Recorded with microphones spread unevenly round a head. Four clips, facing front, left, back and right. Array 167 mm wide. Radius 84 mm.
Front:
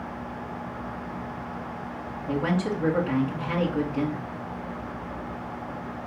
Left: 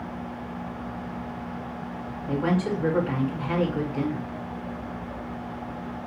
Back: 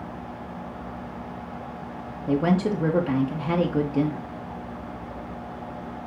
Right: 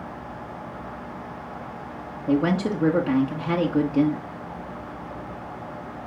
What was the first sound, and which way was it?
A woman speaking, 135° right.